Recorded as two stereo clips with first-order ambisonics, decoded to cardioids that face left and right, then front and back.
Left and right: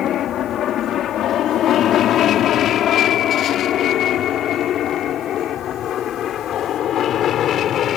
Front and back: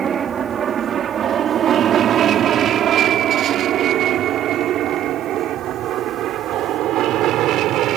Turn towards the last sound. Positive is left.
turn(degrees=140)